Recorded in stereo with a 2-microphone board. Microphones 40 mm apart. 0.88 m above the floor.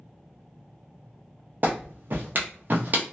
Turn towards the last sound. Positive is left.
turn(degrees=-45)  # may be behind; listen again after turning